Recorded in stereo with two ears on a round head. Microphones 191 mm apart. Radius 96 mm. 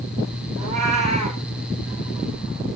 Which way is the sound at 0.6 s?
35° right (ahead or behind).